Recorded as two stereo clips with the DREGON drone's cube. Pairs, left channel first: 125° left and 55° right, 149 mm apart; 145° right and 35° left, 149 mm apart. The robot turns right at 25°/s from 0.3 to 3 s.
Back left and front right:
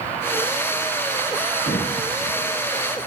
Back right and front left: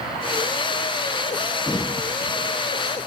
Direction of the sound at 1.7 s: 140° left.